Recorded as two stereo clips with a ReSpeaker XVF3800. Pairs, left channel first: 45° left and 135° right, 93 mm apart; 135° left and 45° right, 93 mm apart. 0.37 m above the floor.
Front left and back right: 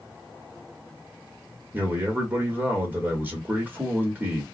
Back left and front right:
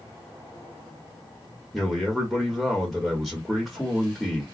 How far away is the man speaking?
About 1.2 m.